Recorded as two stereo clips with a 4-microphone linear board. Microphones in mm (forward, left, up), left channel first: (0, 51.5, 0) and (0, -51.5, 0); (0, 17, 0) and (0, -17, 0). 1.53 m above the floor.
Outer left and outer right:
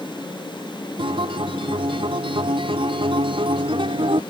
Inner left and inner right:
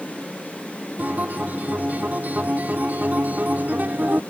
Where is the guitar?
60° right (ahead or behind).